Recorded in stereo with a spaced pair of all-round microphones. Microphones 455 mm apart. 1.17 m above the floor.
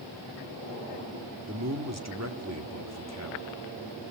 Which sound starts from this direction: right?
A man speaking, at 1.5 s.